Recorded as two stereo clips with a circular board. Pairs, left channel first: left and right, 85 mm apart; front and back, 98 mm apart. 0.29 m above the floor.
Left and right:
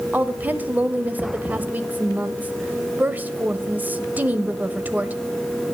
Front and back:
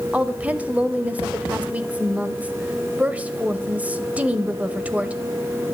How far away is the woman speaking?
About 0.9 m.